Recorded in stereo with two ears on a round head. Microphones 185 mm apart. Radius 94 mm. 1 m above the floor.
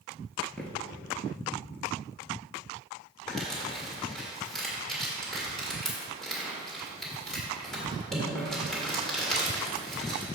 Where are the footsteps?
5° left (ahead or behind), 1.1 m.